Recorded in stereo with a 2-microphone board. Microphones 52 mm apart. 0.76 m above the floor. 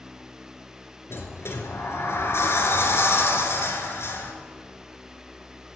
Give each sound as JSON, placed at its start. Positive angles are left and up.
{"t": 1.1, "sound": "a sliding door", "side_deg": 55, "distance_m": 1.9}